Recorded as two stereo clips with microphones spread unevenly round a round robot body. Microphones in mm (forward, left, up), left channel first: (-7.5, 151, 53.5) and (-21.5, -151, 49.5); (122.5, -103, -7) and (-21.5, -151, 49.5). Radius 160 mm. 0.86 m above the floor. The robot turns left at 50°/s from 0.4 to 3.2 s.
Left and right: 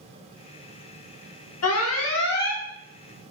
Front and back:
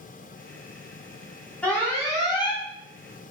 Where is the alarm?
80° left, 2 m; by 2.6 s 30° left, 2 m.